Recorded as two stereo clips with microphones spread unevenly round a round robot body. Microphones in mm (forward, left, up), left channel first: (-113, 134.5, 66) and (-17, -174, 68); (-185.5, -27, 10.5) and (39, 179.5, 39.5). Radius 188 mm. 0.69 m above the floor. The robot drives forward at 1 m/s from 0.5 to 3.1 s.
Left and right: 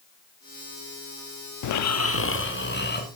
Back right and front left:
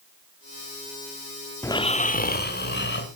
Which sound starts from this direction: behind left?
Snoring, at 1.6 s.